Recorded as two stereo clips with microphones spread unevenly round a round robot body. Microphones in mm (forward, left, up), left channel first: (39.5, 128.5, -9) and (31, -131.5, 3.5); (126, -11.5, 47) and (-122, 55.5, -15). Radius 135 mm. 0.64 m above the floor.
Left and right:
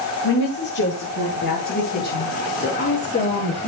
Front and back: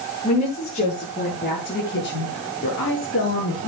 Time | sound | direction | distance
0.2 | a woman speaking | 55° left | 9.5 m